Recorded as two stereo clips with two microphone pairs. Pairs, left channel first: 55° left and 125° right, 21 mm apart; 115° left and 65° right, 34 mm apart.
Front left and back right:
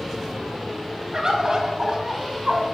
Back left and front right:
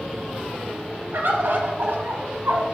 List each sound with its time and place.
1.1 s a bird: 70° right, 1.5 m